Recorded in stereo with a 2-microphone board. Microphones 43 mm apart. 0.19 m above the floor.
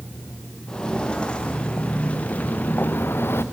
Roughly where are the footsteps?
Centre.